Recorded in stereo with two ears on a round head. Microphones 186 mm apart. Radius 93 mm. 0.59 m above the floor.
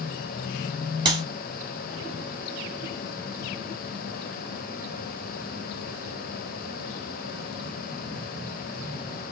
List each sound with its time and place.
1.1 s a clap: 20° right (ahead or behind), 1.3 m